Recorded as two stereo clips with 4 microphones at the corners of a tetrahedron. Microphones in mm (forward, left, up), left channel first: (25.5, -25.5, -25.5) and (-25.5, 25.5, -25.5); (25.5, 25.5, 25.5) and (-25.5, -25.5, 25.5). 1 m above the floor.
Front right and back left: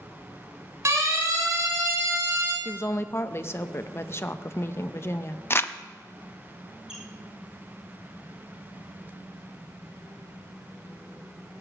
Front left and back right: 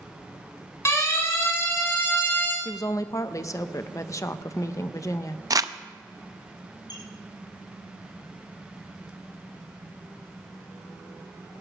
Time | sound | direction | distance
0.8 | a siren | 95° left | 4 m
2.6 | a woman speaking | 5° left | 0.7 m
5.5 | crumpling | 100° right | 0.6 m
6.9 | a squeak | 55° left | 3.5 m